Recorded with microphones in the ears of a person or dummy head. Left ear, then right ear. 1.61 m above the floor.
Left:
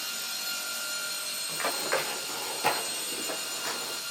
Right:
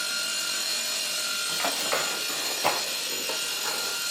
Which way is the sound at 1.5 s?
Centre (ahead or behind).